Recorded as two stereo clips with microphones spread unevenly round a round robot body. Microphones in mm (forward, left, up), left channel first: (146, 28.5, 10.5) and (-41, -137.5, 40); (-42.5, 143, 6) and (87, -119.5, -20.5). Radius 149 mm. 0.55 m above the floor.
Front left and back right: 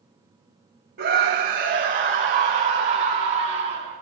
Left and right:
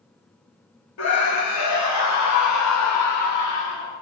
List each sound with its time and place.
1.0 s a scream: 160° left, 3.5 m; by 4.0 s 150° left, 7.5 m